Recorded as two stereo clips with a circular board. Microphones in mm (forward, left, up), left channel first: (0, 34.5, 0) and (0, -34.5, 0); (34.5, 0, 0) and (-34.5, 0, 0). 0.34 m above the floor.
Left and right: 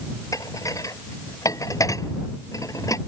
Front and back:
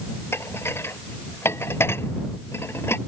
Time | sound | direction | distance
0.3 | dishes clattering | 55° left | ?